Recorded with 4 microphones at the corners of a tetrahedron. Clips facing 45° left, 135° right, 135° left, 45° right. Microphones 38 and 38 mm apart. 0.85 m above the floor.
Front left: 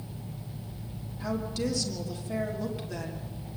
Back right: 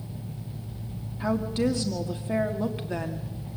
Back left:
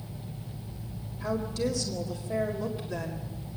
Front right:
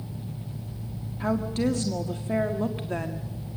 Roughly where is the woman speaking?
Right.